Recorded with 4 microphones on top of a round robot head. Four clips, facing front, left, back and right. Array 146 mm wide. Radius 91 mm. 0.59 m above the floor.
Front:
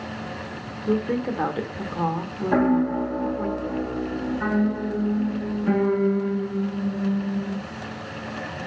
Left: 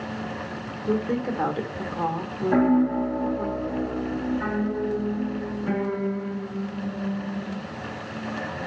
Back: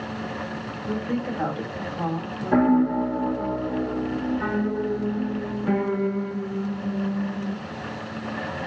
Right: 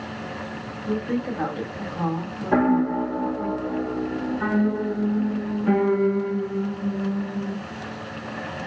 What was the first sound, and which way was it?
A woman speaking, 20° left.